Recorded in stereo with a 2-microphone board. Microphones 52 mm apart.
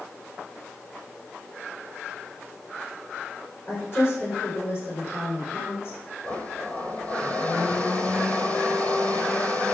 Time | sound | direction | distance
3.7 | a woman speaking | 40° left (ahead or behind) | 8.5 m
6.2 | a blender | 30° left (ahead or behind) | 3 m